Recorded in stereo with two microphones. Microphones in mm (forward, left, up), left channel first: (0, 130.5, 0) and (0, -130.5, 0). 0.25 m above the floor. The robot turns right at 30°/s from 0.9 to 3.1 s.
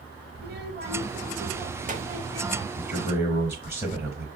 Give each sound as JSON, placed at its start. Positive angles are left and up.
{"t": 0.3, "sound": "a child speaking", "azimuth_deg": -85, "distance_m": 0.6}
{"t": 2.8, "sound": "a man speaking", "side_deg": -5, "distance_m": 1.2}